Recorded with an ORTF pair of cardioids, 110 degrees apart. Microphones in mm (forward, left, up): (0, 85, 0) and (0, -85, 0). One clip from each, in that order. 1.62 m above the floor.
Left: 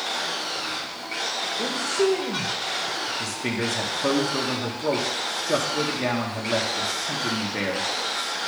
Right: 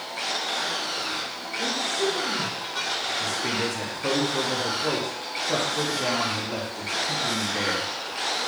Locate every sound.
1.6 s a man speaking: 45° left, 1.9 m
3.2 s a man speaking: 30° left, 1.9 m